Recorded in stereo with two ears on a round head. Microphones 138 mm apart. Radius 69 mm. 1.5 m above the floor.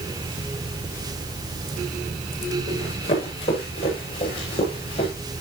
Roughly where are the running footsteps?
Left.